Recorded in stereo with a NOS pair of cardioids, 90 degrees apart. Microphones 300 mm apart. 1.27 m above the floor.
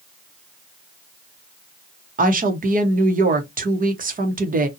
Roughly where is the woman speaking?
Ahead right.